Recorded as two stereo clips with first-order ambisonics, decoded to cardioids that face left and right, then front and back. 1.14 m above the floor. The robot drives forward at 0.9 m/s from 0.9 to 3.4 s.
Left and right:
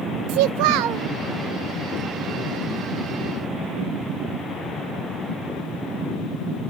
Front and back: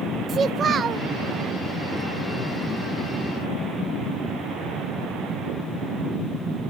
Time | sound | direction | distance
0.3 | a child speaking | 115° right | 0.5 m